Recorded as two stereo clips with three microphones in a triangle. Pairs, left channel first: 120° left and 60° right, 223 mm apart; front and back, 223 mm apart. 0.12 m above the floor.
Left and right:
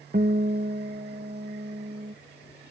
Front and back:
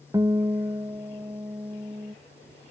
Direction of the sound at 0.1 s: 110° right.